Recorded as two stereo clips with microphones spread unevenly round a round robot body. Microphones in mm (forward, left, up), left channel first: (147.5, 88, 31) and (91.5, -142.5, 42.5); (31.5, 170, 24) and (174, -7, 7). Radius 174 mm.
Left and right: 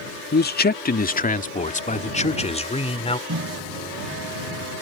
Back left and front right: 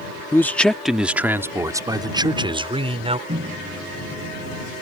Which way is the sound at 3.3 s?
115° right.